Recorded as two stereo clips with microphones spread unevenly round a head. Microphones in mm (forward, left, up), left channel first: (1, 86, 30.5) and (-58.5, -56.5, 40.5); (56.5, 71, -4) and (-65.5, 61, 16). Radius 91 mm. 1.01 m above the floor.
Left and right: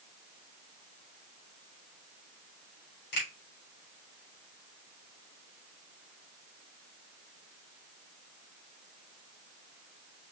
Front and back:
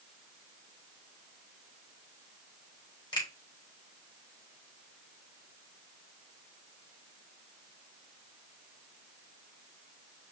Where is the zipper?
No zipper in this recording.